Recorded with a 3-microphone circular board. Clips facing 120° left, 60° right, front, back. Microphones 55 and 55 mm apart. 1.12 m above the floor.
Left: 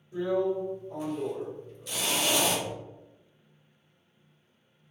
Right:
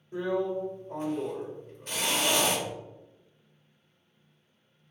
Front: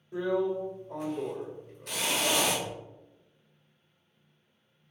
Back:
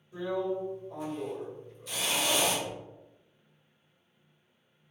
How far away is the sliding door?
About 1.1 m.